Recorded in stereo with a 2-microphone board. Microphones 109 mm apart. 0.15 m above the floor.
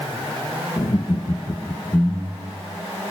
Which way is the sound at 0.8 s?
60° left (ahead or behind).